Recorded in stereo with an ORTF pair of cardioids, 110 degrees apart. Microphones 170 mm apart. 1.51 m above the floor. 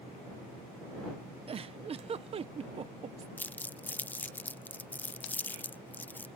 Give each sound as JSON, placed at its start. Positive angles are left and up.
{"t": 1.5, "sound": "a giggle", "azimuth_deg": -35}
{"t": 3.4, "sound": "crumpling", "azimuth_deg": 10}